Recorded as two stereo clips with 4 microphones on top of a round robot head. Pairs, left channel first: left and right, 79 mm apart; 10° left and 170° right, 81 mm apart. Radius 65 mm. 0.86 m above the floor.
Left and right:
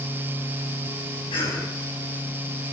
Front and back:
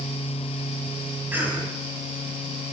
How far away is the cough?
About 7.5 m.